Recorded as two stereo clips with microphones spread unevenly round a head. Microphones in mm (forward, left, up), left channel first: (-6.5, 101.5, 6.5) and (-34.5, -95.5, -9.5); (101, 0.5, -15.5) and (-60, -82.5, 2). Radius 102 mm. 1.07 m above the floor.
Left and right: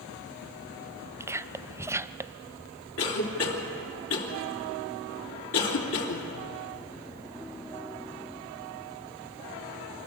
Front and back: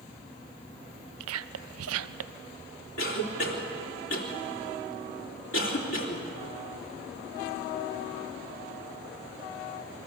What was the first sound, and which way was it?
Whispering, 175° right.